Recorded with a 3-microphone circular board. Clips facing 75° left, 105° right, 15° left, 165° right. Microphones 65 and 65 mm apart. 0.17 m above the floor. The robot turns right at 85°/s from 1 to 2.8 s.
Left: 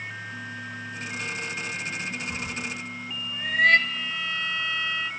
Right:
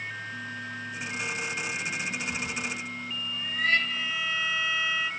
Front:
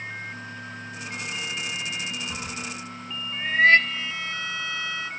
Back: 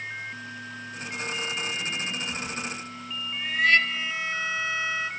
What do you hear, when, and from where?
2.3 s a cat meowing: 25° left, 1.5 m; by 3.8 s 65° left, 1.5 m
3.9 s a violin: straight behind, 1.0 m